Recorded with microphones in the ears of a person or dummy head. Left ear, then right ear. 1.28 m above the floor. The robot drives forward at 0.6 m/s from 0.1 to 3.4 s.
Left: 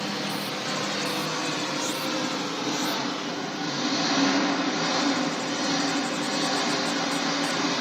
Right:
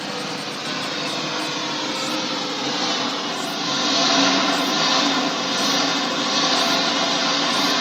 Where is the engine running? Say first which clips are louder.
Right 3 dB; 25° right (ahead or behind), 3 m; by 7.8 s 50° right (ahead or behind), 1.5 m.